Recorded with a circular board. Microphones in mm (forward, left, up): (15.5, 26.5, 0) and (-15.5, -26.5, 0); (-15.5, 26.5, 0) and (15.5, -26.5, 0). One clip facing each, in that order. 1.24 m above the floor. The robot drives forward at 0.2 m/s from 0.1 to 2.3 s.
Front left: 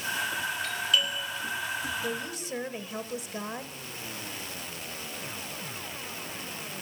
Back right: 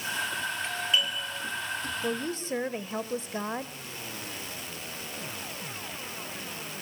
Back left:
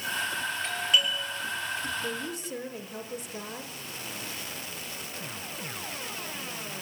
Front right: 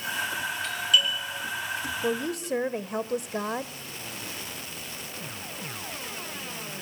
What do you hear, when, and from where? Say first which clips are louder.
0.6 s a doorbell: even, front right 2 dB; 175° left, 4.5 m
2.0 s a woman speaking: back right 3 dB, front right 6 dB; 60° right, 1.0 m; by 3.7 s 65° right, 0.9 m